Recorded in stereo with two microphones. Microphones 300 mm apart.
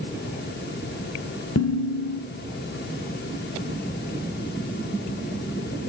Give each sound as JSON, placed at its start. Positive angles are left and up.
{"t": 1.6, "sound": "dishes clattering", "side_deg": 55, "distance_m": 7.0}